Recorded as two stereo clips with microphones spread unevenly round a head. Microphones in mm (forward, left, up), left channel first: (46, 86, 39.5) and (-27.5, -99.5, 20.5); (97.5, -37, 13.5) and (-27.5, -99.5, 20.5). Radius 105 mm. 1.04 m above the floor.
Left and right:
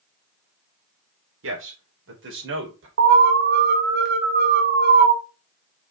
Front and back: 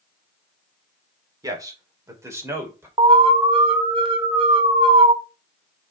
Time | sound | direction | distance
1.4 | a man speaking | 90° right | 3 m
3.0 | an alarm | 105° right | 1.5 m